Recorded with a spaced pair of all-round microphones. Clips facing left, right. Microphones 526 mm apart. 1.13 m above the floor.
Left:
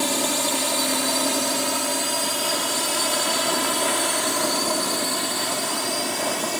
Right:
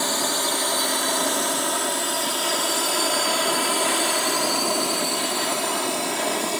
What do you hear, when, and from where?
0.0 s a drone: 55° left (ahead or behind); by 6.6 s 35° left (ahead or behind)